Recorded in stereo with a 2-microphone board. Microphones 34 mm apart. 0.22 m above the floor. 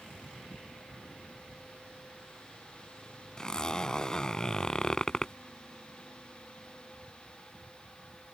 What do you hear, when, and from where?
3.4 s a zipper: 25° left (ahead or behind)